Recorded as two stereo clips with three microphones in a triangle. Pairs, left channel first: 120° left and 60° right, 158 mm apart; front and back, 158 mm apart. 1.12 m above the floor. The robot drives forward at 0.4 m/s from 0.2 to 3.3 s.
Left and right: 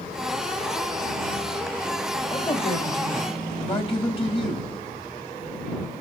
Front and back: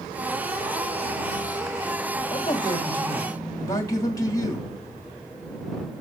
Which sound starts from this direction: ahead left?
A man speaking, at 2.3 s.